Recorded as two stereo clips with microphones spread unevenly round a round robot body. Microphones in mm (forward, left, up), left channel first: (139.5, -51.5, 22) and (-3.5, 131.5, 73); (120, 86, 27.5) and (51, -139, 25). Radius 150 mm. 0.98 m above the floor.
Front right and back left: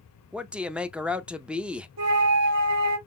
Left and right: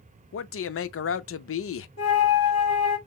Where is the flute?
120° left, 2.5 m.